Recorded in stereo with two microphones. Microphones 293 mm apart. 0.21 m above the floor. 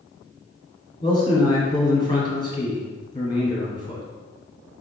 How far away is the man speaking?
About 1.6 m.